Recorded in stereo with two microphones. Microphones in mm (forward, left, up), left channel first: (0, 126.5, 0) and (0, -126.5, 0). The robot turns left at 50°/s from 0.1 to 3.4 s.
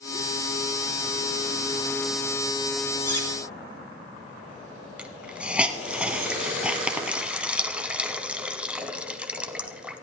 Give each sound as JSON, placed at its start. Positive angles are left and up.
{"t": 3.0, "sound": "cutlery clinking", "side_deg": 75, "distance_m": 2.0}
{"t": 5.0, "sound": "a hiss", "side_deg": -5, "distance_m": 1.1}